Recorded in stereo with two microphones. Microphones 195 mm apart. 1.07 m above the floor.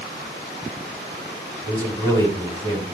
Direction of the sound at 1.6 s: 20° right (ahead or behind).